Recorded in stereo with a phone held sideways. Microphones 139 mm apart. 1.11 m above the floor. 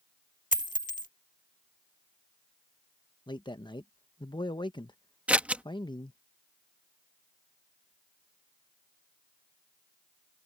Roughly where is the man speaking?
Left.